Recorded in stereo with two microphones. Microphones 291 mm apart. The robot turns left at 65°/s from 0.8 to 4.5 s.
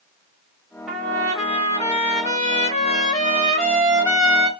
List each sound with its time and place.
0.9 s a trumpet: centre (ahead or behind), 1.5 m; by 4.5 s 20° right (ahead or behind), 1.5 m